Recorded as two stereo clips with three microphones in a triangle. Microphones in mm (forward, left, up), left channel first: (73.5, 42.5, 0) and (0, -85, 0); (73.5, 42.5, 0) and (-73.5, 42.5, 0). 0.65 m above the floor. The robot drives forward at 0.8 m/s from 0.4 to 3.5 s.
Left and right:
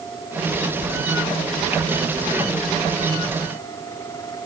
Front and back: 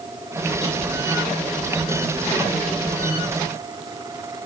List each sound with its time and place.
Only background noise.